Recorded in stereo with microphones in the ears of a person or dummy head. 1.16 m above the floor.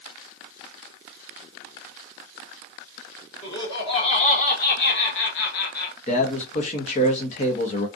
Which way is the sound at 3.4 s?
25° left (ahead or behind).